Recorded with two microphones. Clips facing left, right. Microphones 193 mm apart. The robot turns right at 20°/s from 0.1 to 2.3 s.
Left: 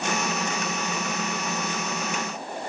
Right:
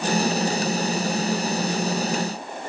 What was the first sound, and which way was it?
Only background noise.